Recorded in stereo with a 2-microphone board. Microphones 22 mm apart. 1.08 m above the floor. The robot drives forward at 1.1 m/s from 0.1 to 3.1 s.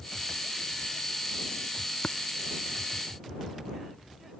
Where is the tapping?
65° left (ahead or behind), 0.5 m; by 2.2 s 60° left (ahead or behind), 0.5 m.